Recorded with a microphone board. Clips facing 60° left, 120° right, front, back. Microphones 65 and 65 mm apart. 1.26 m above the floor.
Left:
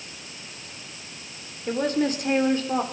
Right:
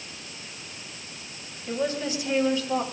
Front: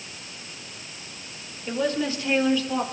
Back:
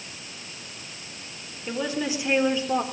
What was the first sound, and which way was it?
A woman speaking, 90° left.